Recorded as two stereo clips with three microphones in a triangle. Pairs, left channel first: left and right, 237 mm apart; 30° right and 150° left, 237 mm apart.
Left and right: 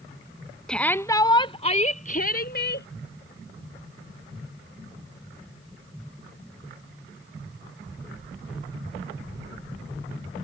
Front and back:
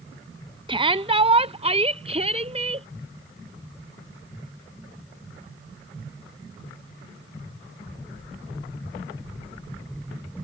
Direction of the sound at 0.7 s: 170° left.